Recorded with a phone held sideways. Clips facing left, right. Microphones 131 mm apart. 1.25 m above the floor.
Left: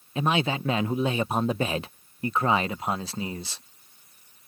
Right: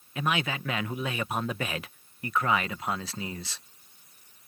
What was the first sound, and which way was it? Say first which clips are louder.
A man speaking: left 5 dB; 30° left (ahead or behind).